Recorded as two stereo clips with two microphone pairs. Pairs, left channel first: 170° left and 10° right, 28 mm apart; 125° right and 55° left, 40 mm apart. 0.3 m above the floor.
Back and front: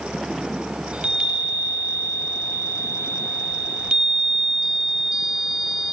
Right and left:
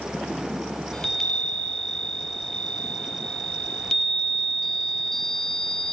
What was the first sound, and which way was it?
A chime, 50° right.